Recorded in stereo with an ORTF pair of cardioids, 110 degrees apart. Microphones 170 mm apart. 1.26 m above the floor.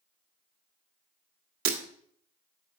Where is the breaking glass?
60° right, 1.6 m.